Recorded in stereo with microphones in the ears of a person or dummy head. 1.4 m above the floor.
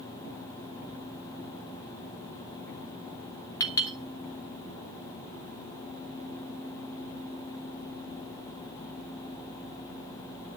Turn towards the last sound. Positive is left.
turn(degrees=20)  # may be behind; listen again after turning